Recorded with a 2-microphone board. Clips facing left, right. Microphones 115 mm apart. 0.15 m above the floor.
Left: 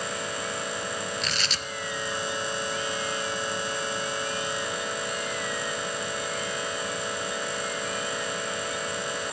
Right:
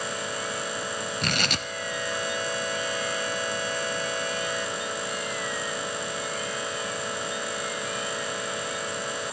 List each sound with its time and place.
1.2 s tearing paper: 60° right (ahead or behind), 0.5 m